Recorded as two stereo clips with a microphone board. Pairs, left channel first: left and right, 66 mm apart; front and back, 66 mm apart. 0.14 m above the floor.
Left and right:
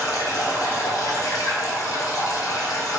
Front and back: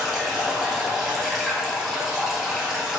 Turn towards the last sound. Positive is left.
turn(degrees=90)